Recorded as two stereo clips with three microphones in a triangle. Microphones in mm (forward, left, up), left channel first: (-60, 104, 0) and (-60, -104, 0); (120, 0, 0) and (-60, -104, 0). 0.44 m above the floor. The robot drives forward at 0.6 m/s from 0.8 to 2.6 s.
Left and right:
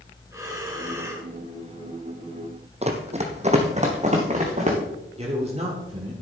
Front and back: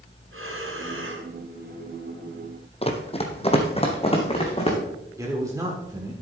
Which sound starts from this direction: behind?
Breathing, at 0.3 s.